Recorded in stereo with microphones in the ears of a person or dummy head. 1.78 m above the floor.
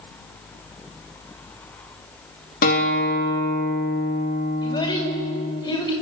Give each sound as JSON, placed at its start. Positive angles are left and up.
{"t": 2.6, "sound": "a guitar", "side_deg": 50, "distance_m": 3.5}
{"t": 4.6, "sound": "a child speaking", "side_deg": 20, "distance_m": 6.0}